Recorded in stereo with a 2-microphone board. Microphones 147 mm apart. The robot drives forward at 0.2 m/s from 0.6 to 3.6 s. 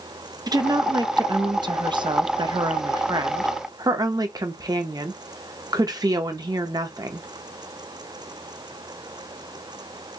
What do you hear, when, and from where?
0.5 s a woman speaking: 30° right (ahead or behind), 0.6 m; by 7.3 s 25° right (ahead or behind), 0.6 m